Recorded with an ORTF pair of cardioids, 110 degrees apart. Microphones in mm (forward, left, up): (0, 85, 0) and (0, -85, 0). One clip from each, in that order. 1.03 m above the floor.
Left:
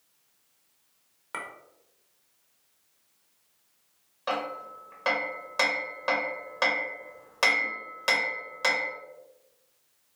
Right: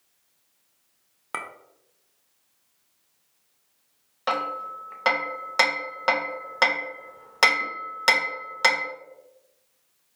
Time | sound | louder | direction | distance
1.3 | a clink | right 4 dB | 30° right | 0.5 m
4.3 | hammering | right 5 dB | 35° right | 0.7 m